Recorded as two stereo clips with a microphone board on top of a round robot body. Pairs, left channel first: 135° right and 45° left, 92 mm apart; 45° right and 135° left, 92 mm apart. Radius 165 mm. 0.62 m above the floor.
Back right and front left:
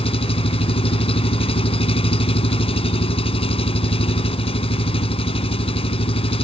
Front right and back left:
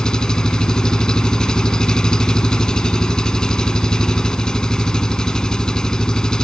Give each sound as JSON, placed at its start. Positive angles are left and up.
{"t": 0.0, "sound": "an engine running", "azimuth_deg": -130}